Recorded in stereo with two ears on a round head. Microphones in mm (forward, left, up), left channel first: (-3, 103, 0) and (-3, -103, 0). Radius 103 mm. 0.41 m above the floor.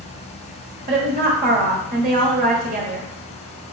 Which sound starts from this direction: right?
A woman speaking, at 0.9 s.